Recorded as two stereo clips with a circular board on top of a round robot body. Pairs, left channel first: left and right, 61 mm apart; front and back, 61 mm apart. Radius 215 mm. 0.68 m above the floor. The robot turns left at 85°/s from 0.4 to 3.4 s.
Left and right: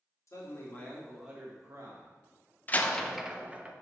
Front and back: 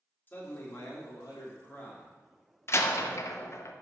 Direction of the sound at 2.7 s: 35° left.